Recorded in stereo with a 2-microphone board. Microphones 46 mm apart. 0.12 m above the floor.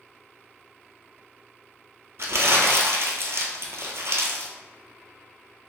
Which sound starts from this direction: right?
Crumpling, at 2.2 s.